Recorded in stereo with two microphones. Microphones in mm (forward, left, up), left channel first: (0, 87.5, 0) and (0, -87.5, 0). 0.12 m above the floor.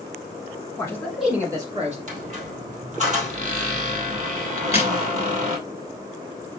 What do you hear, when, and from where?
0.8 s a man speaking: 20° left (ahead or behind), 1.5 m; by 2.0 s 35° right (ahead or behind), 1.7 m
2.1 s a squeak: 45° right (ahead or behind), 1.8 m
4.6 s a crack: 35° left (ahead or behind), 1.7 m